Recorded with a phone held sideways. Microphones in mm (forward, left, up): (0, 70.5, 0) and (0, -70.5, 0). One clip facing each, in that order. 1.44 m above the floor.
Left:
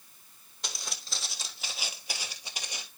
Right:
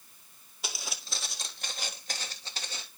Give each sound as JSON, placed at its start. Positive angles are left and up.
{"t": 0.6, "sound": "footsteps", "side_deg": -5, "distance_m": 1.5}